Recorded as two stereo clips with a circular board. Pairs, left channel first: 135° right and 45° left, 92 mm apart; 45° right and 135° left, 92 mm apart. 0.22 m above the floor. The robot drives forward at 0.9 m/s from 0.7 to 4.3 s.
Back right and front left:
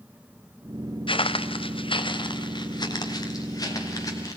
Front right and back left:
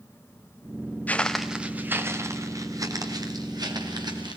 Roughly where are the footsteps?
Behind right.